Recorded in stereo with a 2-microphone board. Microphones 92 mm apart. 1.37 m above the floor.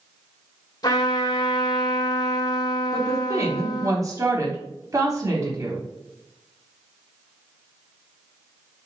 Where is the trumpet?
40° left (ahead or behind), 2 m.